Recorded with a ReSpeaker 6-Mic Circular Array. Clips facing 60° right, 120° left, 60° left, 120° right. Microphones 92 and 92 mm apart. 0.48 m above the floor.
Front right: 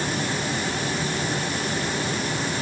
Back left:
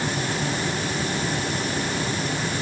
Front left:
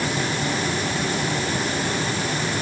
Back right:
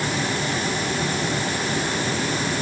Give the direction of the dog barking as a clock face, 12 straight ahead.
No dog barking in this recording.